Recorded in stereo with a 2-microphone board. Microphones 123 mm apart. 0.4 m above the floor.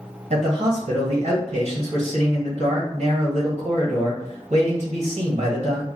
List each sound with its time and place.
0.3 s a man speaking: 60° right (ahead or behind), 1.6 m